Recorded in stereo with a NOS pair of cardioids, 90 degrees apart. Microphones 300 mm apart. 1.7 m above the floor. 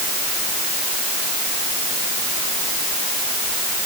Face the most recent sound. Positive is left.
No sound to turn to.